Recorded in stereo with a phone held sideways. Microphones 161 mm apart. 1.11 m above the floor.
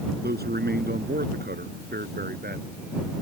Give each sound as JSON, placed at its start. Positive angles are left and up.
{"t": 0.2, "sound": "a man speaking", "side_deg": -85}